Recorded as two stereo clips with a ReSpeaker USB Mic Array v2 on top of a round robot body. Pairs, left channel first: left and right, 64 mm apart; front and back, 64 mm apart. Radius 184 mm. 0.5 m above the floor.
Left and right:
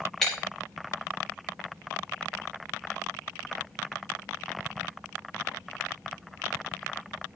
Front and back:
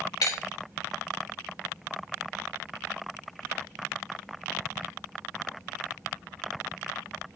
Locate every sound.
0.2 s breaking glass: 5° left, 5 m